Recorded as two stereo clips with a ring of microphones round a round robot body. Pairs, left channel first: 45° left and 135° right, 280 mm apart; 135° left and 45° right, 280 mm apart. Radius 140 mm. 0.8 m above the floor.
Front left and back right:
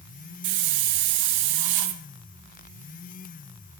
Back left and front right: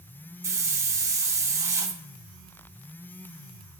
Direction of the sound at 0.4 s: 125° right.